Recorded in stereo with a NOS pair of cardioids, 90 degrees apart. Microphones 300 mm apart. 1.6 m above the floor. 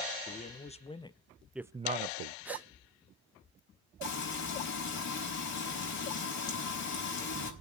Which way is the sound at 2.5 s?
5° right.